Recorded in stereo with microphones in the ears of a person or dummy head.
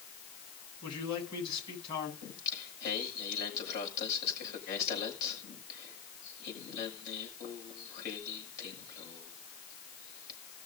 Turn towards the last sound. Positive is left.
turn(degrees=60)  # may be behind; listen again after turning